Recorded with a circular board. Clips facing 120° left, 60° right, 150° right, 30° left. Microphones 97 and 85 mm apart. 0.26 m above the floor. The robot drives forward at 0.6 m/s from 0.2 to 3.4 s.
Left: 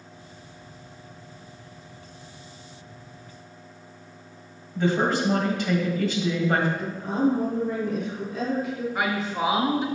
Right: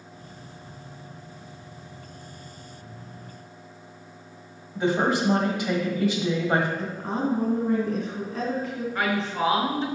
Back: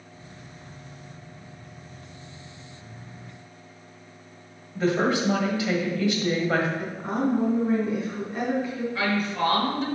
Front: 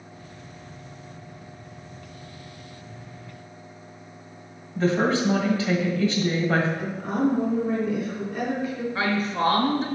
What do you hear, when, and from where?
4.8 s a woman speaking: 120° right, 1.5 m
6.8 s a woman speaking: 95° right, 2 m
8.9 s a woman speaking: 65° left, 1.2 m